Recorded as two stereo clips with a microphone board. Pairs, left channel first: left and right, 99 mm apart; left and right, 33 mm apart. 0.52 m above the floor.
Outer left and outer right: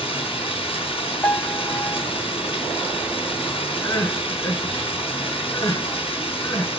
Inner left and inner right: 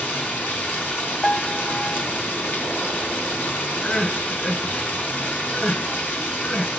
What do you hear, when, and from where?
0.0 s running water: 70° left (ahead or behind), 4 m
1.2 s a piano: 15° left (ahead or behind), 0.5 m
3.8 s crying: 40° left (ahead or behind), 7 m